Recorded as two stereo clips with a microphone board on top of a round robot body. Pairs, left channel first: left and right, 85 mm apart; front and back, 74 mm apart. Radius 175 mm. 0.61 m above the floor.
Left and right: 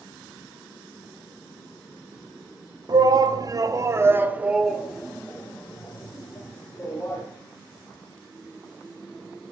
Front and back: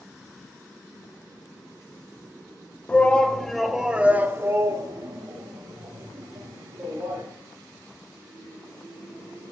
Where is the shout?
70° right, 1.4 m; by 7.2 s 150° left, 2.5 m.